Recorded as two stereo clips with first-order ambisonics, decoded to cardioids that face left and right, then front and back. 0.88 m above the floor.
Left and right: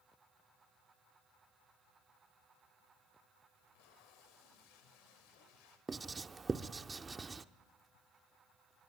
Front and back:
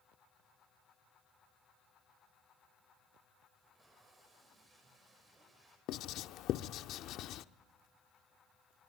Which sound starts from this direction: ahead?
Writing, at 5.9 s.